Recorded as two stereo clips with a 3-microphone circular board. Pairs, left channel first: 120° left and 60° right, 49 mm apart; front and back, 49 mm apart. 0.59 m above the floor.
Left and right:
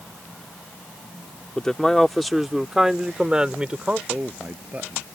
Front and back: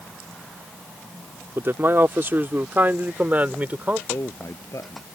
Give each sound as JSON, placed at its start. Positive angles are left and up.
{"t": 1.6, "sound": "a man speaking", "azimuth_deg": -170}
{"t": 4.1, "sound": "a man speaking", "azimuth_deg": 0}